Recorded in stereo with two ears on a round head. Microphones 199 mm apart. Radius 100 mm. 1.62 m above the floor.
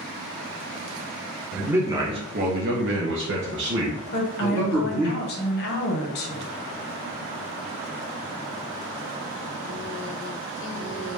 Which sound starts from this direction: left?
A woman speaking, at 4.1 s.